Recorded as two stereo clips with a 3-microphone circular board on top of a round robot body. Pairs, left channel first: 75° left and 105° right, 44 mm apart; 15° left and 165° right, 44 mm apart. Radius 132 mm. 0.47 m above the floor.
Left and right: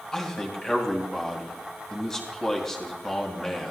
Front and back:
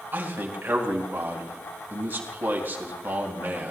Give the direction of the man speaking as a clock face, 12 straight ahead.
7 o'clock.